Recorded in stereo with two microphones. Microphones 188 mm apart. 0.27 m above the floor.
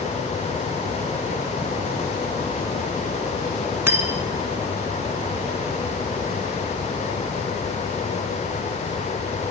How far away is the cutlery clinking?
About 1.3 m.